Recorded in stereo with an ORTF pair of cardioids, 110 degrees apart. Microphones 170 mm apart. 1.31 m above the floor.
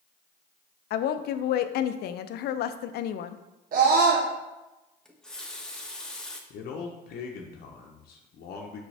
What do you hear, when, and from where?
0.9 s a woman speaking: 70° left, 0.6 m
3.7 s a scream: 55° right, 0.8 m
5.0 s a running tap: 5° left, 0.9 m
6.5 s a man speaking: 60° left, 0.8 m